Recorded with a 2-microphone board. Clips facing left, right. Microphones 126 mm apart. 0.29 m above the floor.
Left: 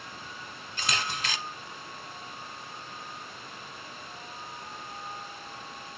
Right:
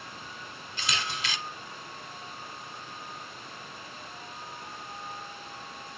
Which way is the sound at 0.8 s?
45° left (ahead or behind).